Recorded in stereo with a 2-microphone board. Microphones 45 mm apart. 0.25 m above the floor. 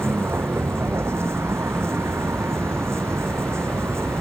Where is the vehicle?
70° right (ahead or behind); by 4.2 s 80° right.